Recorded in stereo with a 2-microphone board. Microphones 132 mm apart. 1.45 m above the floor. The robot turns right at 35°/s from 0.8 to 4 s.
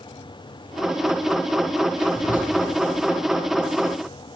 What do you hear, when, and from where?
2.1 s whispering: 75° left (ahead or behind), 1.0 m; by 2.5 s 90° left, 1.0 m